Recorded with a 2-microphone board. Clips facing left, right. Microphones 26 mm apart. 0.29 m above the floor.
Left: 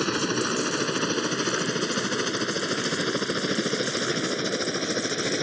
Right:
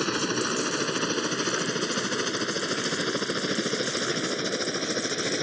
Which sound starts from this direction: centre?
A helicopter, at 0.0 s.